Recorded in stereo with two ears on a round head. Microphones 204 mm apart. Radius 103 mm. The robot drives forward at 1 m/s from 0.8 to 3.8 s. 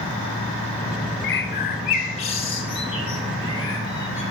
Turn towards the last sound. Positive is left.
turn(degrees=15)  # may be behind; listen again after turning